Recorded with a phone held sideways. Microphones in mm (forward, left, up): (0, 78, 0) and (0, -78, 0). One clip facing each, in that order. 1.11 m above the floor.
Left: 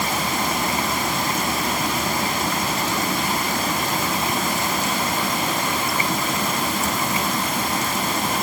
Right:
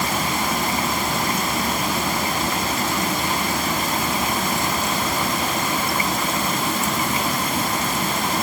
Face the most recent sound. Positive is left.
No sound to turn to.